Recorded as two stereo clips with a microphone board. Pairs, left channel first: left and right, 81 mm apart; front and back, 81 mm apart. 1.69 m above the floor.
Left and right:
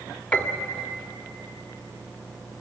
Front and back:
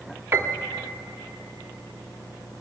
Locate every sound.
0.3 s a piano: 150° left, 1.3 m